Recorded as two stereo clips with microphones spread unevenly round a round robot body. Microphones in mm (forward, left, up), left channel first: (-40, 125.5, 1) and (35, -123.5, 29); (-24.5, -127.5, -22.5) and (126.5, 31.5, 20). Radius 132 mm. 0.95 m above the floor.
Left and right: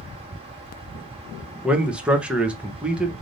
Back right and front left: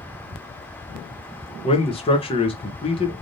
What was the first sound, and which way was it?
A man speaking, 165° right.